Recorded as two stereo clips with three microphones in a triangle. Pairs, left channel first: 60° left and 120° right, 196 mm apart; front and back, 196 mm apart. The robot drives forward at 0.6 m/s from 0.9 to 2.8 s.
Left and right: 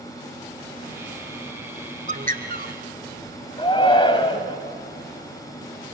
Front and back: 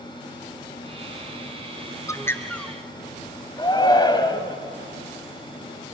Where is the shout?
35° left, 1.4 m.